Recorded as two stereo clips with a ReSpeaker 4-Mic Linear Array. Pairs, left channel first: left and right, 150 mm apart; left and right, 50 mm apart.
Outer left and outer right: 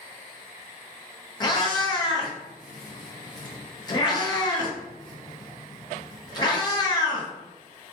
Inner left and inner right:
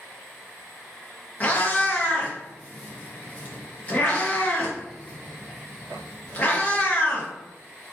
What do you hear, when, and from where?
1.4 s a cat meowing: 30° left (ahead or behind), 0.7 m